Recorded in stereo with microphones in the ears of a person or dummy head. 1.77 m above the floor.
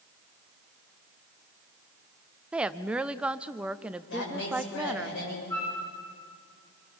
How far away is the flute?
About 8.5 m.